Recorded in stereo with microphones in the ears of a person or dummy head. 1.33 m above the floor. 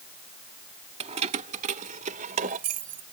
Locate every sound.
1.0 s keys jangling: 30° right (ahead or behind); by 3.0 s 40° right (ahead or behind)